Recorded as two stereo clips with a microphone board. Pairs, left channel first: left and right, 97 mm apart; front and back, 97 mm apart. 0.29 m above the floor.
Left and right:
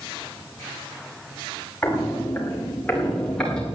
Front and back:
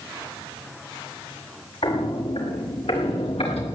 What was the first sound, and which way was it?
Footsteps, 15° left.